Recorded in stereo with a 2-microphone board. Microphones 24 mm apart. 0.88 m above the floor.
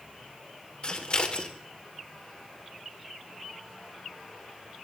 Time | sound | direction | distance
0.8 | scissors | 40° left (ahead or behind) | 2.0 m